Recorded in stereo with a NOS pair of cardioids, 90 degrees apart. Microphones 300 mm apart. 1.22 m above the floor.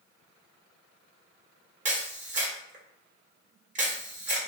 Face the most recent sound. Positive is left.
turn(degrees=-25)